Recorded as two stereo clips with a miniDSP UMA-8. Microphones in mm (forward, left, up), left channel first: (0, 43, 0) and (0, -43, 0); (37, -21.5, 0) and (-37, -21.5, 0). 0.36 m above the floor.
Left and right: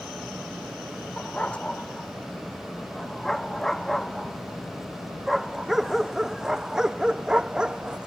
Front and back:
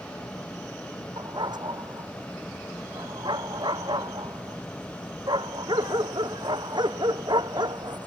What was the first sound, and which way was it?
A dog barking, 165° left.